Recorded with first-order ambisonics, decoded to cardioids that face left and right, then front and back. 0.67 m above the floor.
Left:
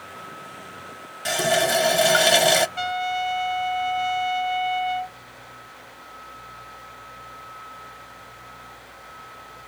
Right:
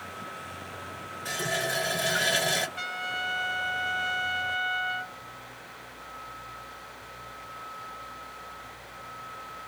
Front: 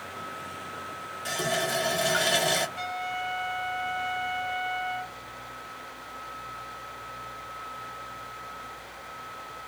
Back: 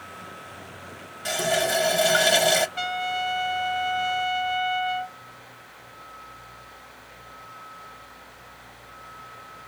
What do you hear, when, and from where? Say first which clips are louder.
1.2 s a running tap: left 9 dB, back 5 dB; 105° left, 0.7 m
2.8 s a trumpet: left 7 dB, back 5 dB; 140° left, 0.6 m